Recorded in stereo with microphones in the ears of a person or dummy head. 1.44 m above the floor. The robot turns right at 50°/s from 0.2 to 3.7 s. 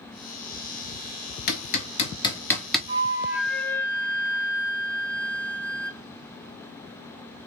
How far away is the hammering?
About 0.8 m.